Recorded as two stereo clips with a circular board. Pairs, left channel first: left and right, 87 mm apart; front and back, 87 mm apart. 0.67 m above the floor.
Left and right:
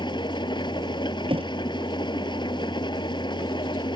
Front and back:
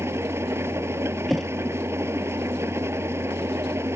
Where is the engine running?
120° left.